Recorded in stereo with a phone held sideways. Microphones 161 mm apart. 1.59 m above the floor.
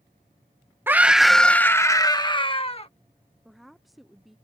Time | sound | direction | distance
0.9 | a scream | 15° right (ahead or behind) | ?
3.5 | a woman speaking | centre (ahead or behind) | ?